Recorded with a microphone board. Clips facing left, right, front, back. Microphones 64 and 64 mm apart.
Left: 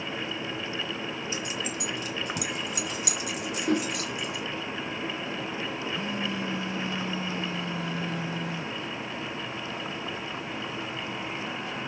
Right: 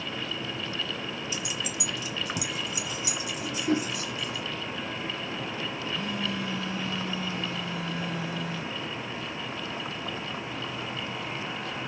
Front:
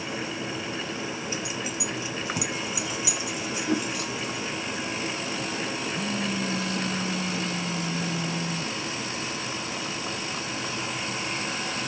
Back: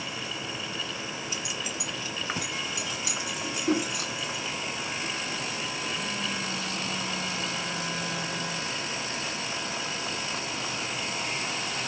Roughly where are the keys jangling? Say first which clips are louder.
Left 1 dB, front 3 dB; ahead left.